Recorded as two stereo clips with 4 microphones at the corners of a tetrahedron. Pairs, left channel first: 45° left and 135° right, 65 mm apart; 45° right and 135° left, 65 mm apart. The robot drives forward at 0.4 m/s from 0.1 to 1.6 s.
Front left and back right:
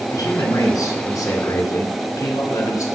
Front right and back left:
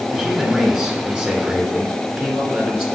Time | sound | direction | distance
0.1 | a man speaking | 55° left | 3 m